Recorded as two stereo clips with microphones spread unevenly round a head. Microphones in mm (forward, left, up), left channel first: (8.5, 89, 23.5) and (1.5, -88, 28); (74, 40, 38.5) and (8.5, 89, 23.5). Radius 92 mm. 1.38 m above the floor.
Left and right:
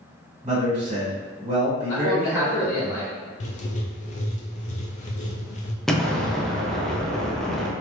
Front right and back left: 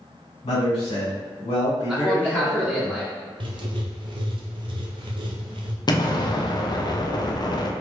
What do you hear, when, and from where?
0.4 s a man speaking: 30° right, 1.6 m
1.9 s a man speaking: 70° left, 1.2 m
3.4 s writing: 140° left, 0.6 m
5.9 s an explosion: straight ahead, 0.5 m